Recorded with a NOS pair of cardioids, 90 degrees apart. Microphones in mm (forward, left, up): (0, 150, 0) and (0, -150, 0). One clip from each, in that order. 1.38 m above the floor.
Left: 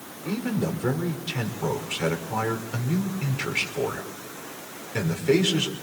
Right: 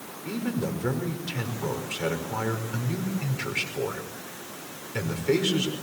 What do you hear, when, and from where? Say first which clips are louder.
0.2 s a man speaking: left 2 dB; 15° left, 5 m